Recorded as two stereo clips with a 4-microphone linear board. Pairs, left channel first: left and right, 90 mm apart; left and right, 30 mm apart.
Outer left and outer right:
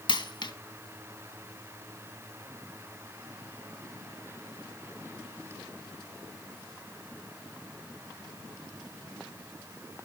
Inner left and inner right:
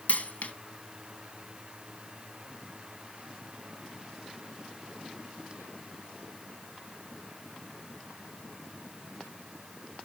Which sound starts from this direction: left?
A dropped coin, at 0.1 s.